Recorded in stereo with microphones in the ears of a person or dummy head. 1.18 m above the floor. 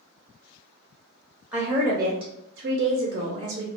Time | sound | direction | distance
1.5 | a woman speaking | 10° right (ahead or behind) | 0.9 m